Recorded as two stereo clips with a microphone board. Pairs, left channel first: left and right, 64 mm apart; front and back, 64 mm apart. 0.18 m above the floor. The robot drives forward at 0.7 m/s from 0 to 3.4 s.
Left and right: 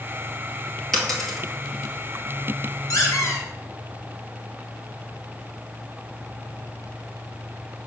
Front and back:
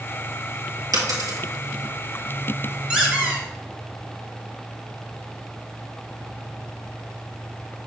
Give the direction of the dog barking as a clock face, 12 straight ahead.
No dog barking in this recording.